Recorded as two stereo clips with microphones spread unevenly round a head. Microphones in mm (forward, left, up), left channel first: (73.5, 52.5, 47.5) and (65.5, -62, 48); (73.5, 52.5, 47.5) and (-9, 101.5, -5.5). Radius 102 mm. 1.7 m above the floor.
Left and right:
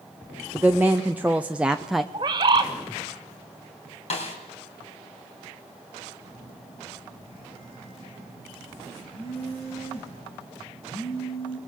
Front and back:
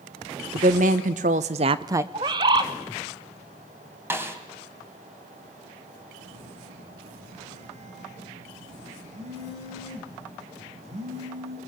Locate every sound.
0.5 s a woman speaking: 175° right, 1.2 m; by 2.0 s 15° right, 0.5 m
2.1 s a bird: 130° right, 0.7 m
4.1 s a snare drum: 70° left, 3 m
6.2 s a phone buzzing: 140° left, 5 m